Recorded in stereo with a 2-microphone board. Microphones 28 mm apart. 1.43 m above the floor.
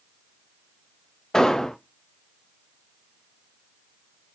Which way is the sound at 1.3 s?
15° left (ahead or behind).